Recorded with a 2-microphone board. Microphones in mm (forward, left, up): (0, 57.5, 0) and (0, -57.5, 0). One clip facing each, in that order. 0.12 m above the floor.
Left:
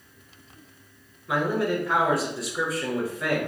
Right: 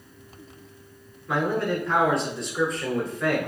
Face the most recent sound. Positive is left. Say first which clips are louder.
# even
turn(degrees=5)  # may be behind; listen again after turning